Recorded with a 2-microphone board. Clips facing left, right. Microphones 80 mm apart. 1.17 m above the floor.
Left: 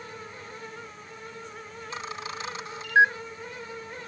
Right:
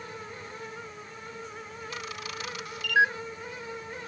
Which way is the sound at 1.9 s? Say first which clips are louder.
Left 4 dB; 30° left (ahead or behind).